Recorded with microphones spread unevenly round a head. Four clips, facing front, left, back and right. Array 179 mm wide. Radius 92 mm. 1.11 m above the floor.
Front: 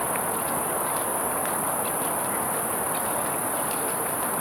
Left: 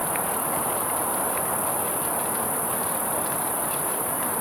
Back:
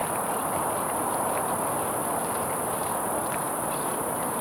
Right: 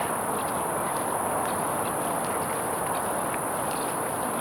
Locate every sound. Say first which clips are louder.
0.0 s an insect: even, even; 35° left